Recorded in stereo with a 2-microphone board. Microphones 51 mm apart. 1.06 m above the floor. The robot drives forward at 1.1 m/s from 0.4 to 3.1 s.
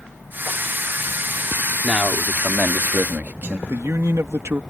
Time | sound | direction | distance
1.8 | a man speaking | 25° right (ahead or behind) | ?
3.7 | a man speaking | 60° right (ahead or behind) | ?